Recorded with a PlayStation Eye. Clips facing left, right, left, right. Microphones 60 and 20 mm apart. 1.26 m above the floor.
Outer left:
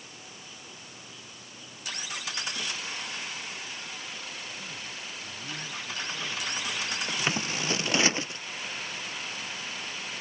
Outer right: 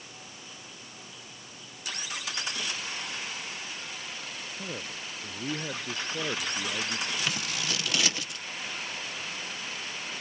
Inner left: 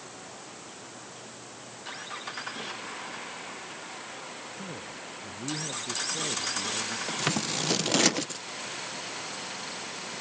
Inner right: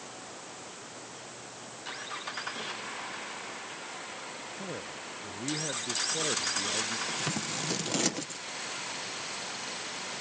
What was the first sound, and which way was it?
A man speaking, 80° right.